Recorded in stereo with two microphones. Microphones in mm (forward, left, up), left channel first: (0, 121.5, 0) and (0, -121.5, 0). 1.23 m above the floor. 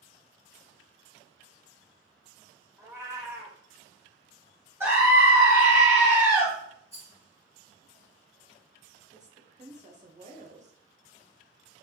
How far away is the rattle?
About 1.6 m.